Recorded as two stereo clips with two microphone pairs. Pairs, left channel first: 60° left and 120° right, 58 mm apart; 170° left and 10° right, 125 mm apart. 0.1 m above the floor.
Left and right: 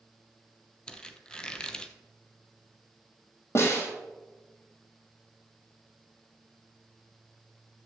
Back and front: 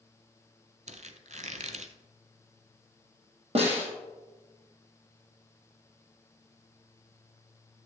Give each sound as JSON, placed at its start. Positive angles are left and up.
{"t": 0.9, "sound": "a squeak", "azimuth_deg": -15, "distance_m": 0.7}
{"t": 3.5, "sound": "a snare drum", "azimuth_deg": 20, "distance_m": 2.5}